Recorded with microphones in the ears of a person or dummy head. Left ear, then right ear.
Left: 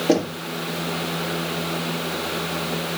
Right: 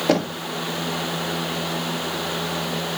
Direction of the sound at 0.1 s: 50° right (ahead or behind).